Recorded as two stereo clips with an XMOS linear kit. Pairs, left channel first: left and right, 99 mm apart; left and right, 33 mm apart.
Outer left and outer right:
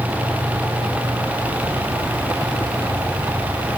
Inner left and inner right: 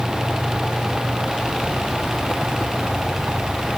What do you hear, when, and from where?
Only background noise.